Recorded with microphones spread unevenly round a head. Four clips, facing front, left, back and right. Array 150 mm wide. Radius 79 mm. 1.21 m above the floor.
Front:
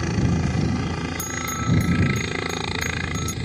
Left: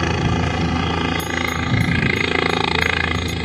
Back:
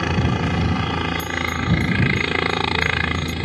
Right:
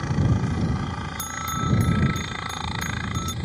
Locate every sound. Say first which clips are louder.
0.0 s a helicopter: left 5 dB, back 2 dB; 105° left
1.2 s a bell: left 6 dB, back 4 dB; 80° right